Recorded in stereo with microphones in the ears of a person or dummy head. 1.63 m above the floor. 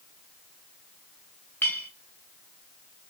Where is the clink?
5° left (ahead or behind), 1.1 m.